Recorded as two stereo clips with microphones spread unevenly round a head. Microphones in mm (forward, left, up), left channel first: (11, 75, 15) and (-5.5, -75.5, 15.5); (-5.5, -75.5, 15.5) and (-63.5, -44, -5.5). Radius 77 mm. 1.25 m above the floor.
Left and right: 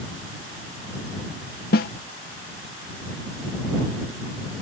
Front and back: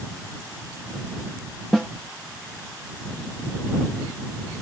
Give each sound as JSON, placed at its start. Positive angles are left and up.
{"t": 1.7, "sound": "a snare drum", "azimuth_deg": 60}